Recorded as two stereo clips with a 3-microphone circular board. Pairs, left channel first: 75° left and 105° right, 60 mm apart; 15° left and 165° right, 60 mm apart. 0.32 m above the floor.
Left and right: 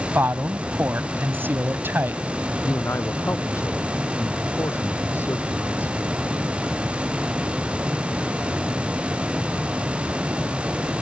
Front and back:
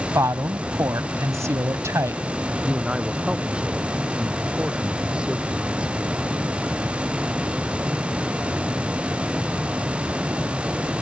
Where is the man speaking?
120° left.